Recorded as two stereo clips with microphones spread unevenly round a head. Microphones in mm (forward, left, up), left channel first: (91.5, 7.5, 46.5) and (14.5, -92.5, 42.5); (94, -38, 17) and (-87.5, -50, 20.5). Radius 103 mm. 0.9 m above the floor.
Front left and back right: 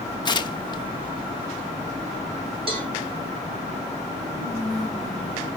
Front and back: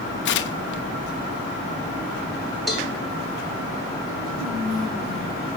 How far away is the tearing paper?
About 1.0 m.